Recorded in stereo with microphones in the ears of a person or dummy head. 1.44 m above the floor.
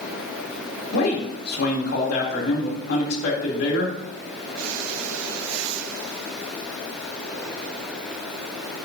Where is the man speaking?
65° left (ahead or behind), 3 m.